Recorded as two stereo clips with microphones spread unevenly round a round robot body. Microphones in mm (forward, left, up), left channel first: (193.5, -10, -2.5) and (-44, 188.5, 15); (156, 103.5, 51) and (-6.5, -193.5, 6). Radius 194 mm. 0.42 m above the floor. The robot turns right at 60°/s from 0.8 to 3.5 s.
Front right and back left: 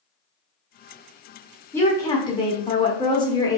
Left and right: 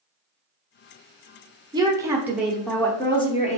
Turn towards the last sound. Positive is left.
turn(degrees=5)